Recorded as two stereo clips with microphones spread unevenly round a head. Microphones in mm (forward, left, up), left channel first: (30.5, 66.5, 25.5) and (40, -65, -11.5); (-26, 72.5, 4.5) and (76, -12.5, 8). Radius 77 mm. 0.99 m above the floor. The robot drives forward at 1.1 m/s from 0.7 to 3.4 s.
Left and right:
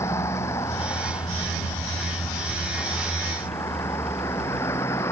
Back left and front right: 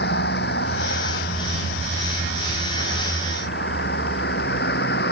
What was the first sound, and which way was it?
A vehicle, 170° left.